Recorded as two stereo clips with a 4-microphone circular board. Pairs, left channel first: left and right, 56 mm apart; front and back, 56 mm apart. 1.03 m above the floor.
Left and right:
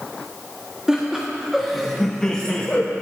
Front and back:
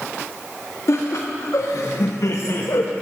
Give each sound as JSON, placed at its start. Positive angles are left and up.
{"t": 0.9, "sound": "laughter", "azimuth_deg": -10, "distance_m": 1.7}